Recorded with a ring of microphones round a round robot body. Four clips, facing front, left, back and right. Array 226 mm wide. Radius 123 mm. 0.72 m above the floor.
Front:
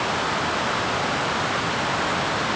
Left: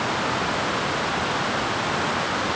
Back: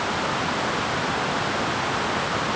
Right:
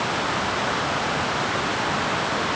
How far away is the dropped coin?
No dropped coin in this recording.